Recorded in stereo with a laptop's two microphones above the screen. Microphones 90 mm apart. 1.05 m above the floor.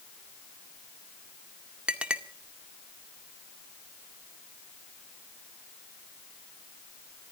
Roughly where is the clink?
Centre.